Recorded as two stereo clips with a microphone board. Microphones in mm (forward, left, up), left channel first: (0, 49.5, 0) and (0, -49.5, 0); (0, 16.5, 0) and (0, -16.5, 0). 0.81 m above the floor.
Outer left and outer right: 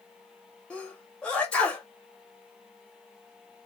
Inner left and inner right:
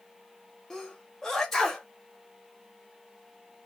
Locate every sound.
0.7 s a sneeze: 10° left (ahead or behind), 0.7 m